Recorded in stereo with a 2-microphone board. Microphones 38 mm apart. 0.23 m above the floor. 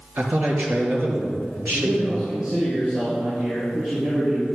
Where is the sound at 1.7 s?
30° right (ahead or behind), 4.5 m.